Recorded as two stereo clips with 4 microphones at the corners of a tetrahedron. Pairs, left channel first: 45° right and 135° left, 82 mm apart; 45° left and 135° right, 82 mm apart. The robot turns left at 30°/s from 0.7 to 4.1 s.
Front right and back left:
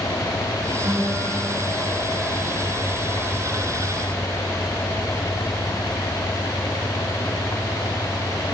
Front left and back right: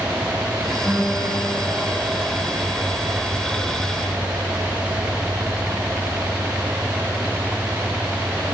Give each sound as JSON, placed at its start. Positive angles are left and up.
{"t": 0.8, "sound": "a guitar", "azimuth_deg": 135, "distance_m": 7.0}